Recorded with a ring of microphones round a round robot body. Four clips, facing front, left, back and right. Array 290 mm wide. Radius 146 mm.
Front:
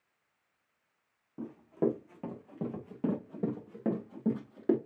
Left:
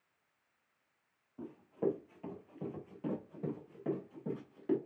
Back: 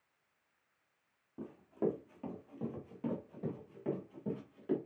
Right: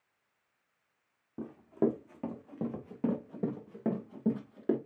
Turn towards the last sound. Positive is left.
turn(degrees=-45)